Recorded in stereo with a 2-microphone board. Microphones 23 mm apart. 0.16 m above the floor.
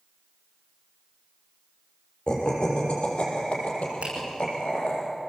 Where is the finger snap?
70° right (ahead or behind), 7.5 m.